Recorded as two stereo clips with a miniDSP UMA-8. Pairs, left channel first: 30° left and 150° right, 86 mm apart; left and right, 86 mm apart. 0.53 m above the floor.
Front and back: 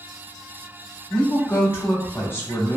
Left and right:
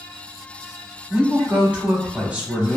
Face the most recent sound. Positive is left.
turn(degrees=-25)